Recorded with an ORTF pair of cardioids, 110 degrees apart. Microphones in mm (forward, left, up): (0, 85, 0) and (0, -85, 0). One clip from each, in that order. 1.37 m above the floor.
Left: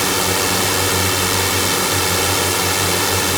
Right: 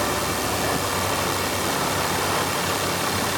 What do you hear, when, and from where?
0.0 s a drone: 60° left